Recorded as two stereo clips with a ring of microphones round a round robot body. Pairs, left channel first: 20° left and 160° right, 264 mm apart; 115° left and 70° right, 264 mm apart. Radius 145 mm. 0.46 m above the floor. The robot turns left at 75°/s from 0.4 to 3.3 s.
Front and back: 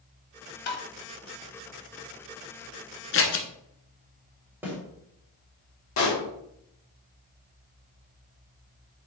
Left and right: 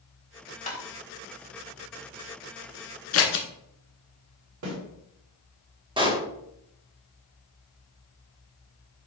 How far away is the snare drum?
About 3 m.